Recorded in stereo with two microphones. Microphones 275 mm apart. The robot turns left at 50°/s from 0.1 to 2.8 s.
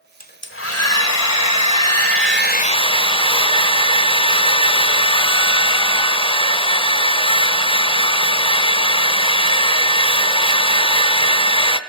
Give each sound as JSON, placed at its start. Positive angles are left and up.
{"t": 0.2, "sound": "a hair dryer", "azimuth_deg": 150, "distance_m": 0.8}